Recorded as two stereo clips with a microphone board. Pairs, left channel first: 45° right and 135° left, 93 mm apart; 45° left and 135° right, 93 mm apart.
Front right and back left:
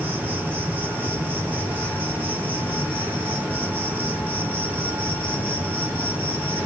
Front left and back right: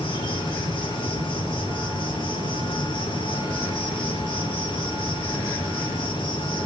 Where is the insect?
65° left, 7 m.